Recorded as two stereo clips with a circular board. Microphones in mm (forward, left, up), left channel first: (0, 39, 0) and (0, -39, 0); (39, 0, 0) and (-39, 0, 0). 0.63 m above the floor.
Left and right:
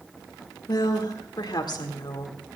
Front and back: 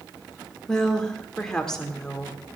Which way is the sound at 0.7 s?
80° left.